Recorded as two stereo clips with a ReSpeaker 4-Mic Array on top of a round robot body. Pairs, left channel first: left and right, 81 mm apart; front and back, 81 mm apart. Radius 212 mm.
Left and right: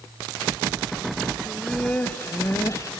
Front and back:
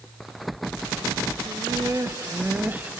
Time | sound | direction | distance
1.5 | laughter | 170° left | 1.3 m